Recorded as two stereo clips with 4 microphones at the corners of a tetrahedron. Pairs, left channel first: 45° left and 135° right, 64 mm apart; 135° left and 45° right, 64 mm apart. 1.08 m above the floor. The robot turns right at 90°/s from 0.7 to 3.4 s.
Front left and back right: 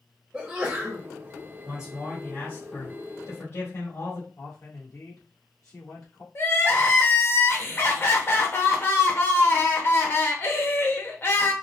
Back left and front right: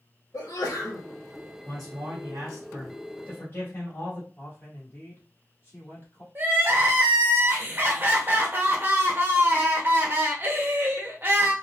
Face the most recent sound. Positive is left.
turn(degrees=0)